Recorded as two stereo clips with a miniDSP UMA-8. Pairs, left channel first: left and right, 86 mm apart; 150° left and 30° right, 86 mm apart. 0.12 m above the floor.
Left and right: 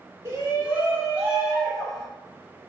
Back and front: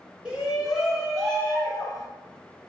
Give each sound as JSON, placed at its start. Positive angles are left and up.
{"t": 0.2, "sound": "a shout", "azimuth_deg": -100, "distance_m": 1.5}